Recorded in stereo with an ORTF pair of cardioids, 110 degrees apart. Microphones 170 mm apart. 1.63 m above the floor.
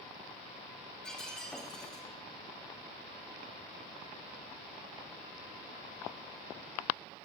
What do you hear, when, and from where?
1.0 s breaking glass: 5° left, 5.5 m